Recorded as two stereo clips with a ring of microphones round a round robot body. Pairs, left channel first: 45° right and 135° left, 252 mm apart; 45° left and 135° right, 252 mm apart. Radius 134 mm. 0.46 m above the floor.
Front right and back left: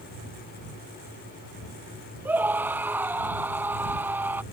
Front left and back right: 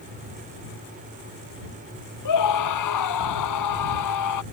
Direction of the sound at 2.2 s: 50° left.